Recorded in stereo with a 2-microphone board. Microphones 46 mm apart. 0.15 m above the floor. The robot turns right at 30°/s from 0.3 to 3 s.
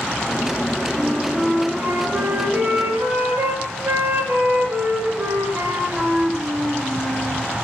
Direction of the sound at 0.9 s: 155° right.